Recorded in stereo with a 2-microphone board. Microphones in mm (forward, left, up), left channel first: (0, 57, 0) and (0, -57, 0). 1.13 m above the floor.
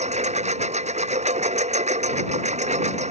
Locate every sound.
0.0 s a lawn mower: 85° right; by 3.1 s 90° right